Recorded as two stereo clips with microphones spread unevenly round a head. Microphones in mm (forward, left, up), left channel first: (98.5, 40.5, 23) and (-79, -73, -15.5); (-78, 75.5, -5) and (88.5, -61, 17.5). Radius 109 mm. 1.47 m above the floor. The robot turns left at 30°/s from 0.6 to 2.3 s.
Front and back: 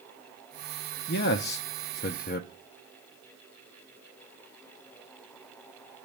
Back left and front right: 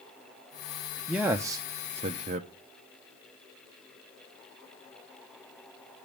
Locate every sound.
1.1 s a man speaking: 40° left, 0.6 m; by 2.5 s 5° left, 0.6 m